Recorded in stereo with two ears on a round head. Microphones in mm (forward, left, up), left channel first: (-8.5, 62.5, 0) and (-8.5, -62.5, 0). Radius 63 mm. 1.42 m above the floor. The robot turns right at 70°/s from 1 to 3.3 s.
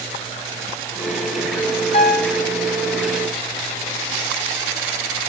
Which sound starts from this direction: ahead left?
A piano, at 1.9 s.